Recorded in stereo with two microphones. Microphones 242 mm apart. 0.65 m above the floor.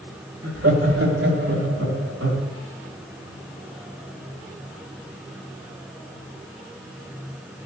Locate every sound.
0.4 s laughter: 70° right (ahead or behind), 3 m